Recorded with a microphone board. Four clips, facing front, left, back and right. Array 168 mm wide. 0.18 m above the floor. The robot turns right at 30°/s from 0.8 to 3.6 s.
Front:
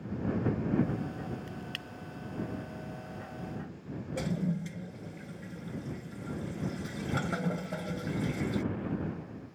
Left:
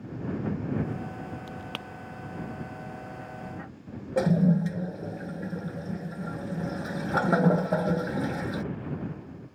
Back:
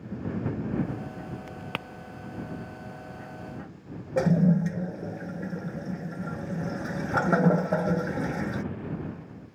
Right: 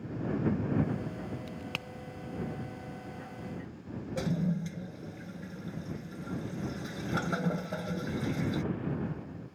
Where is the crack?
155° left; by 1.9 s 165° left.